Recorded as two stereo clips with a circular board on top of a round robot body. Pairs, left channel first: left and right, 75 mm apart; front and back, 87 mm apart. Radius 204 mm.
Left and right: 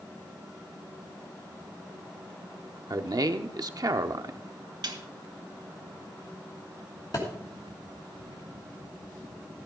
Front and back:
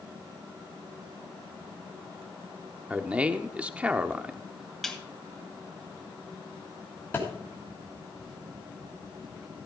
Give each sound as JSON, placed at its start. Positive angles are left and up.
{"t": 2.9, "sound": "a man speaking", "azimuth_deg": -105, "distance_m": 0.8}
{"t": 4.8, "sound": "a snare drum", "azimuth_deg": -85, "distance_m": 2.0}
{"t": 7.1, "sound": "a thud", "azimuth_deg": 65, "distance_m": 3.0}